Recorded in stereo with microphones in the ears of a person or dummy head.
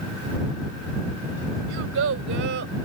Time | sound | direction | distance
1.7 | a child speaking | 70° right (ahead or behind) | ?